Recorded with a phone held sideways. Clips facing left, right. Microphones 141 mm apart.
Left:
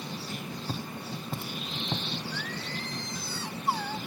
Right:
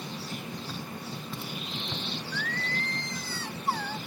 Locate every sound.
0.7 s footsteps: 45° left (ahead or behind), 2 m
2.3 s singing: 10° left (ahead or behind), 0.9 m